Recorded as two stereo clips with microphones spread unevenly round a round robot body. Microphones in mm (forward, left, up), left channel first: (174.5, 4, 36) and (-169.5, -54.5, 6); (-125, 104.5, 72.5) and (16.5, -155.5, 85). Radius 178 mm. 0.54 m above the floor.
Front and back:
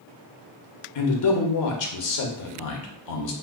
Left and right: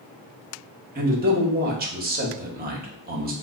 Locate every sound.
0.9 s a man speaking: 10° right, 0.9 m